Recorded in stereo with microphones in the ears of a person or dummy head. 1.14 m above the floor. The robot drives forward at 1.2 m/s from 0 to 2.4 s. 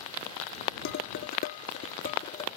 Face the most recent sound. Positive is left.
turn(degrees=35)  # may be behind; listen again after turning